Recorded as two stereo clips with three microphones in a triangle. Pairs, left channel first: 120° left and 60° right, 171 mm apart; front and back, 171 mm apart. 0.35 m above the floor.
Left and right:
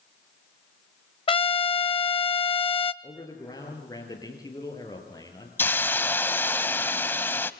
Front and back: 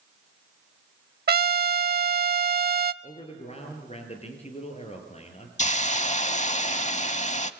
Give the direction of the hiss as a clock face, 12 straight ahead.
11 o'clock.